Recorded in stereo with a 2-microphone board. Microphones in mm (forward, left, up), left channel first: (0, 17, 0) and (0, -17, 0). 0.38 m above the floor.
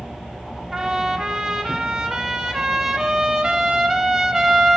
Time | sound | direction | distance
0.7 | a trumpet | 15° right (ahead or behind) | 1.1 m